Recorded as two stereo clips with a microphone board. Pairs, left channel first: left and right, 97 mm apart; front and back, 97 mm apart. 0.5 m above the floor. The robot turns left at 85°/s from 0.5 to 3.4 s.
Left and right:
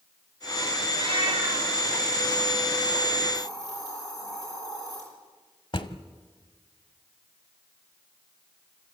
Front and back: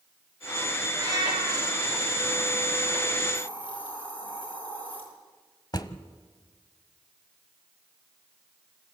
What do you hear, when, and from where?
0.9 s a cat meowing: 115° right, 4.5 m; by 1.7 s straight behind, 4.5 m
3.3 s a hiss: 40° left, 8.5 m; by 5.0 s 35° left, 8.5 m
5.7 s a drawer: 50° left, 1.1 m